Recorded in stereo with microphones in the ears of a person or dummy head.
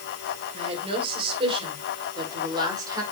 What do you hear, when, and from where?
0.5 s a woman speaking: 35° right (ahead or behind), 6 m; by 3.0 s 20° right (ahead or behind), 5.5 m